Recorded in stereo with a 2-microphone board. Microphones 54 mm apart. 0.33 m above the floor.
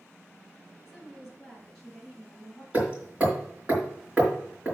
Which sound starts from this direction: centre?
A woman speaking, at 0.9 s.